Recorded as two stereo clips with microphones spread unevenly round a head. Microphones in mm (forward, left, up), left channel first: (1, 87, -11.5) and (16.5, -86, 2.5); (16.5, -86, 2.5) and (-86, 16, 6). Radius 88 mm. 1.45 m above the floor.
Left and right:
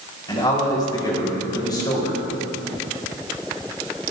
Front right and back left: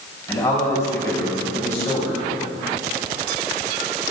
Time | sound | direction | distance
0.3 | a man speaking | 30° left | 4.5 m